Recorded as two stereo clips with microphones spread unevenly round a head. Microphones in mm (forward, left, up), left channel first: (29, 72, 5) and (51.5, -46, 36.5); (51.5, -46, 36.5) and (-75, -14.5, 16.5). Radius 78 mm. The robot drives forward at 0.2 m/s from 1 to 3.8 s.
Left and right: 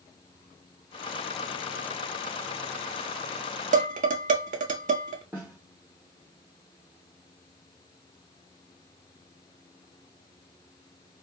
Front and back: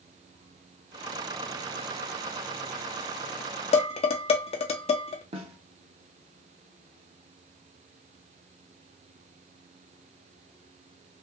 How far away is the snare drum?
About 0.8 m.